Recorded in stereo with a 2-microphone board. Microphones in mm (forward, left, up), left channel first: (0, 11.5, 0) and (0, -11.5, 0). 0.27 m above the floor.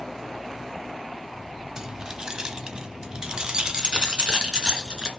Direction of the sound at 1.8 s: 25° right (ahead or behind).